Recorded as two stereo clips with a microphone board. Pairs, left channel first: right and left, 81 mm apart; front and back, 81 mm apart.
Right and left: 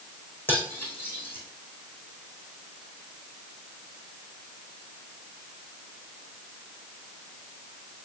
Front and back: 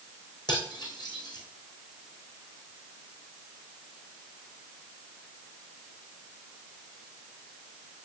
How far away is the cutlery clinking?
About 3.5 m.